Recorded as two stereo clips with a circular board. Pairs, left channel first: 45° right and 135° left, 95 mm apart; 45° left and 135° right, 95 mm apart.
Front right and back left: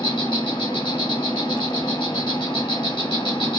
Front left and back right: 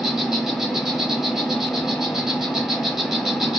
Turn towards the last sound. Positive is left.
turn(degrees=-50)